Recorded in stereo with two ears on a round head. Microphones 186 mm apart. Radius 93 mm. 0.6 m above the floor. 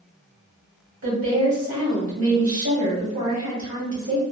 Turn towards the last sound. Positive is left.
turn(degrees=-70)  # may be behind; listen again after turning